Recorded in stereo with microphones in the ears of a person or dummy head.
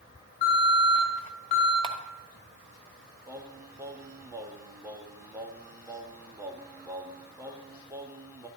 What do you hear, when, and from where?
0.4 s an alarm: 45° left (ahead or behind), 4 m
1.8 s a camera shutter: 25° right (ahead or behind), 1.2 m
3.3 s singing: 15° right (ahead or behind), 1.0 m